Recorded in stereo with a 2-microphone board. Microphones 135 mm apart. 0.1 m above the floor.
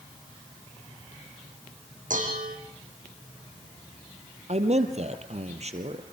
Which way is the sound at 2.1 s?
75° right (ahead or behind).